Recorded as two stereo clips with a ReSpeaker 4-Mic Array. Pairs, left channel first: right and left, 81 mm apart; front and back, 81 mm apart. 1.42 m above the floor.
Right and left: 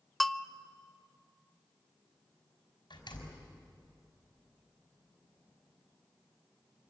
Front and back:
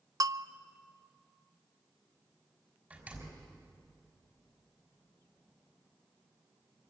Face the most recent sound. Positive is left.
turn(degrees=-110)